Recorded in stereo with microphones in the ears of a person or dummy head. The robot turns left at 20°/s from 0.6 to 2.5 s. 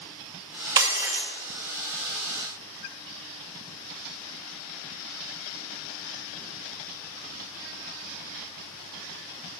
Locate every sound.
0.8 s breaking glass: 15° right (ahead or behind), 0.9 m; by 1.3 s 5° right (ahead or behind), 0.9 m